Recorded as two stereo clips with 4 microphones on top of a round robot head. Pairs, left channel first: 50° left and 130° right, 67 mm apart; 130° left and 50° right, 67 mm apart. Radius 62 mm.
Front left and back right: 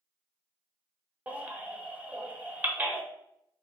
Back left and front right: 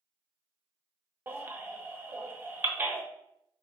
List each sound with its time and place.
1.3 s a baby crying: 80° right, 0.7 m